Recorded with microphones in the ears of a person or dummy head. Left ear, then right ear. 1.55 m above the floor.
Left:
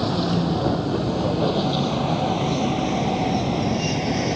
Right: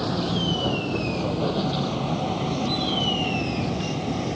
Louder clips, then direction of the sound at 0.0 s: Left 2 dB; centre (ahead or behind).